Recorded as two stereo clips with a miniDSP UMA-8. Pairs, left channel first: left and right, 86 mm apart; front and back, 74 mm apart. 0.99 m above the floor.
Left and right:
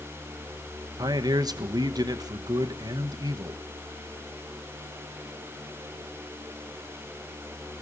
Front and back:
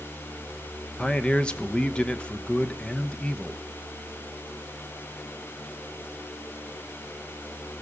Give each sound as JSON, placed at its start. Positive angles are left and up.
{"t": 1.0, "sound": "a man speaking", "azimuth_deg": -75, "distance_m": 0.9}